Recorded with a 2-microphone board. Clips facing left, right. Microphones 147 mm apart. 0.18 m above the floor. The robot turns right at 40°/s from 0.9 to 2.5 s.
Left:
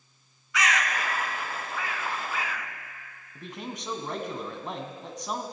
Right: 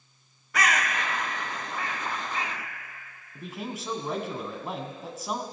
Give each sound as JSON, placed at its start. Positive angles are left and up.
{"t": 0.5, "sound": "a bird", "side_deg": -50, "distance_m": 1.1}
{"t": 3.4, "sound": "a man speaking", "side_deg": -5, "distance_m": 1.3}